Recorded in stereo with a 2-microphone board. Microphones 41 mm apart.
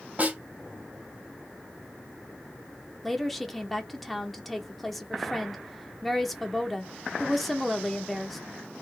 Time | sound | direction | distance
0.2 | a snare drum | 40° right (ahead or behind) | 2.5 m
3.0 | a woman speaking | centre (ahead or behind) | 0.9 m